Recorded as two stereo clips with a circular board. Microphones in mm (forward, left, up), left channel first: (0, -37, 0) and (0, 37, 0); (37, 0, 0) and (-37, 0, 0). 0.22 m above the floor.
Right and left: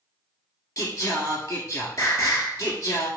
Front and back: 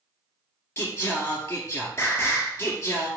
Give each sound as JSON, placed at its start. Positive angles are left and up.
{"t": 0.8, "sound": "singing", "azimuth_deg": -50, "distance_m": 1.9}